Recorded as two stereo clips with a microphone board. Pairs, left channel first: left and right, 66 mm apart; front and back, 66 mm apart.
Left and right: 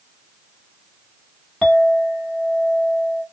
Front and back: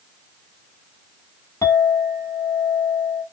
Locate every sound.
1.6 s a clink: 5° left, 1.3 m